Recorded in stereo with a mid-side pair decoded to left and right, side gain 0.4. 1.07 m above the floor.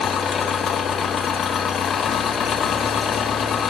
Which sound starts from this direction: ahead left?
An engine running, at 0.0 s.